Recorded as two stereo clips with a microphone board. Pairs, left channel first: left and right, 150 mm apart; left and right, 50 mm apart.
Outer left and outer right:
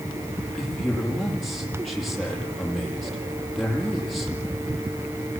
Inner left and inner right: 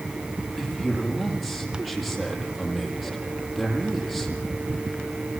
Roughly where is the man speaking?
Centre.